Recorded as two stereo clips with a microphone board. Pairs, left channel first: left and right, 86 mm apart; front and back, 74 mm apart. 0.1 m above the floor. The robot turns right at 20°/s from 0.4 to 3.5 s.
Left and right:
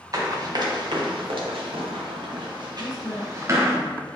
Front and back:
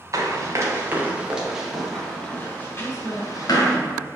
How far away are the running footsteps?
About 2.5 m.